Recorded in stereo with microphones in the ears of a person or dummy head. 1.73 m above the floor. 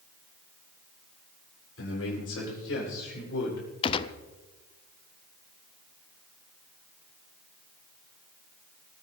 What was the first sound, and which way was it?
A man speaking, 85° left.